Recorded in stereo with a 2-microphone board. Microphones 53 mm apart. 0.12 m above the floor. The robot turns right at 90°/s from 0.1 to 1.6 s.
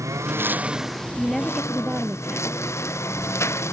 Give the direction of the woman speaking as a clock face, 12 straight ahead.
7 o'clock.